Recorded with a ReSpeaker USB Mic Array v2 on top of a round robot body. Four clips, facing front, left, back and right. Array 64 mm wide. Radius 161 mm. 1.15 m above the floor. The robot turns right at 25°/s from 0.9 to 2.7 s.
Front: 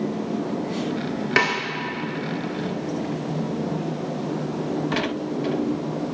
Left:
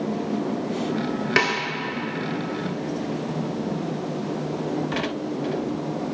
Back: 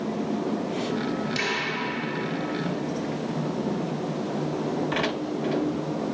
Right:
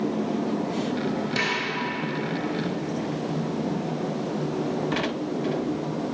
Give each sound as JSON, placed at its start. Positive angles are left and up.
{"t": 1.4, "sound": "a snare drum", "azimuth_deg": 35, "distance_m": 0.6}